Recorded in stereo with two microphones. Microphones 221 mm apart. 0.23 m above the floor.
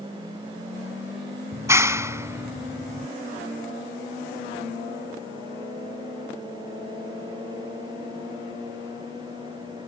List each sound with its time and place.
1.5 s a clap: 15° right (ahead or behind)